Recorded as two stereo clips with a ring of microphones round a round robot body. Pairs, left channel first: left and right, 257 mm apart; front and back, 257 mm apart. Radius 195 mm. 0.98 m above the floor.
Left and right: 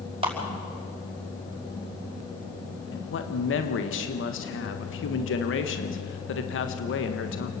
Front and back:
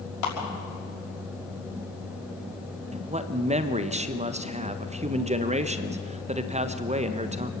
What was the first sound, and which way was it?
A clap, 20° right.